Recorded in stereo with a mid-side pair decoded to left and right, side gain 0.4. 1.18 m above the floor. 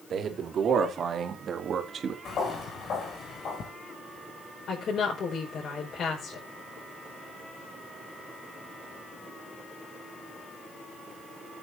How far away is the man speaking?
About 3 m.